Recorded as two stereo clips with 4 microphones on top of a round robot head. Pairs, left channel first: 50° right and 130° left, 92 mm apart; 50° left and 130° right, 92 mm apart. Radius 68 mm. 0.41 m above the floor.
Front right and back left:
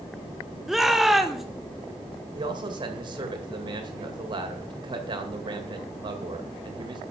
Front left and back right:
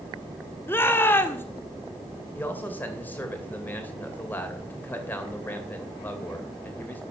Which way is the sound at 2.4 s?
115° left.